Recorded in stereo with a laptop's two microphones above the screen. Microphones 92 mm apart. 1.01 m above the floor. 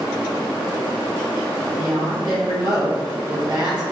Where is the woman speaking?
45° right (ahead or behind), 1.3 m.